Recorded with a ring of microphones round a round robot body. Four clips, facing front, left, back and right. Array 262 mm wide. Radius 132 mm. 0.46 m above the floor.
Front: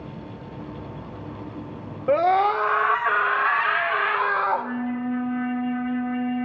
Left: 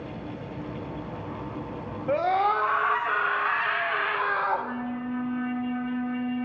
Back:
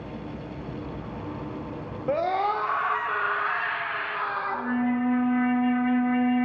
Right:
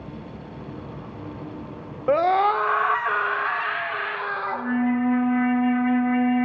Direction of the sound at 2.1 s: 70° right.